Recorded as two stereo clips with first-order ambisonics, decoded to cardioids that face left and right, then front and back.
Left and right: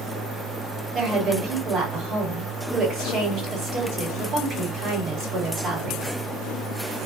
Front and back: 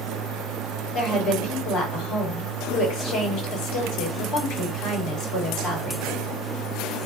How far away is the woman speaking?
About 1.7 m.